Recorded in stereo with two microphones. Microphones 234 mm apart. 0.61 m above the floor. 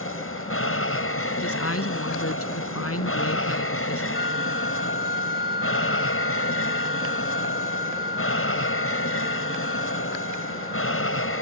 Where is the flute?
40° left (ahead or behind).